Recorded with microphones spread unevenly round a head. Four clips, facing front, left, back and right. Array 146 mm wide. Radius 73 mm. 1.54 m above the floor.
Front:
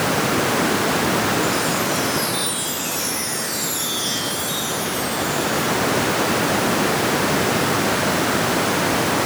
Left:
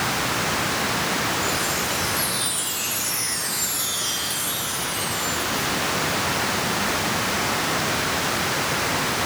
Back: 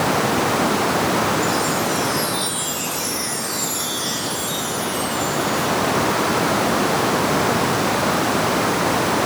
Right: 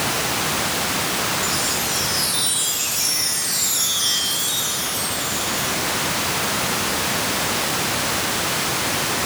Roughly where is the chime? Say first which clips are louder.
Even, back 1 dB; behind.